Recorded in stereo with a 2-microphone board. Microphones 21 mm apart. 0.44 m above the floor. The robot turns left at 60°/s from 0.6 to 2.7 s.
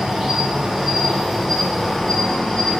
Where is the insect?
120° right, 0.9 m; by 2.8 s 115° left, 0.9 m.